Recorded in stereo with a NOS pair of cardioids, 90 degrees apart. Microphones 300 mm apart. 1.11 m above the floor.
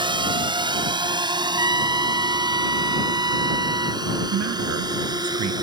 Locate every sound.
0.0 s a drone: 15° right
1.6 s a trumpet: 15° right
4.3 s a man speaking: 65° right